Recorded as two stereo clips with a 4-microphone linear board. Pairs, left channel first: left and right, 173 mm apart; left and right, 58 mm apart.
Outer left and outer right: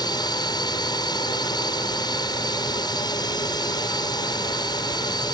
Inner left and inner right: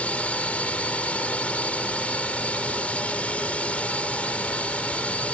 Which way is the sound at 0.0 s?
25° left (ahead or behind).